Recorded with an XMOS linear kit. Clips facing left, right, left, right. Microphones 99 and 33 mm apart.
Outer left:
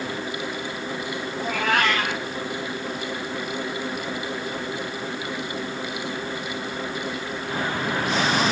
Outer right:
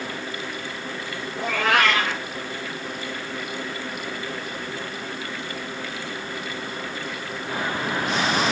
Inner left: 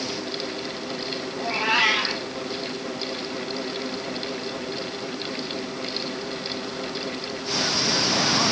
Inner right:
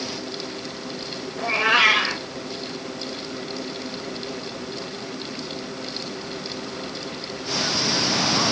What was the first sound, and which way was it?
A cat meowing, 70° right (ahead or behind).